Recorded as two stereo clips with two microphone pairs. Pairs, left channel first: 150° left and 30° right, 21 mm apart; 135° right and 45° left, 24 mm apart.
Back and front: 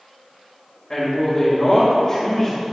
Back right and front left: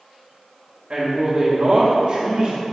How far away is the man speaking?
About 1.8 m.